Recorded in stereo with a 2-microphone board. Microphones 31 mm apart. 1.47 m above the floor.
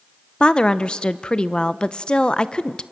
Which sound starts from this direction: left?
A woman speaking, at 0.4 s.